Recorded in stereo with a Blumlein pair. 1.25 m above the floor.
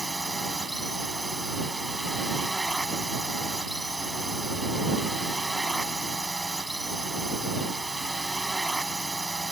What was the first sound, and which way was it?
A drone, 5° right.